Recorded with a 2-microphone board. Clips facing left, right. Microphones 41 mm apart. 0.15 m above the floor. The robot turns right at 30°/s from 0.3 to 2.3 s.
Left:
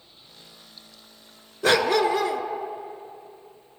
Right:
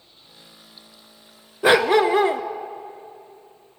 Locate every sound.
1.6 s a dog barking: 20° right (ahead or behind), 0.5 m; by 2.4 s 35° right (ahead or behind), 0.5 m